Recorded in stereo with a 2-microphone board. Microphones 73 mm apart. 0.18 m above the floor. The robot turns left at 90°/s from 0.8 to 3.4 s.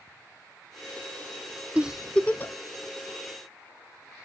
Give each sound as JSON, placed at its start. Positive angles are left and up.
{"t": 1.8, "sound": "a giggle", "side_deg": -20, "distance_m": 0.7}